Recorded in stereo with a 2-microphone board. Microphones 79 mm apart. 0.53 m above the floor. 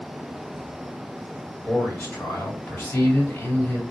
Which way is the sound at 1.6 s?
25° left (ahead or behind).